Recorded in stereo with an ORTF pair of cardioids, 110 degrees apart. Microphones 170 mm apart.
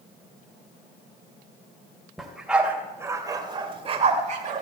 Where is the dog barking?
Straight ahead, 2.5 m; by 4.6 s 55° right, 2 m.